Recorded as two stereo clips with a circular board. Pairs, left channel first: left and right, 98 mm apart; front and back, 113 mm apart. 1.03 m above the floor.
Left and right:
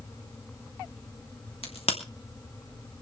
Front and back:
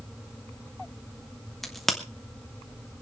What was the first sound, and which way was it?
A crack, 90° left.